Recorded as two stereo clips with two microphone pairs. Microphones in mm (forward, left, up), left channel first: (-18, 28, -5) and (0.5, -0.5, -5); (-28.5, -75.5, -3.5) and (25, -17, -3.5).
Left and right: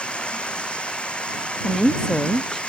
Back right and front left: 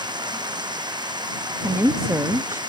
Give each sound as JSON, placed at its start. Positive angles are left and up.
{"t": 0.0, "sound": "running water", "azimuth_deg": 65}
{"t": 1.6, "sound": "a woman speaking", "azimuth_deg": 65}